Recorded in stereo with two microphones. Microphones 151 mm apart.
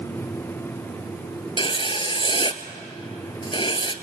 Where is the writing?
35° left (ahead or behind), 0.9 m.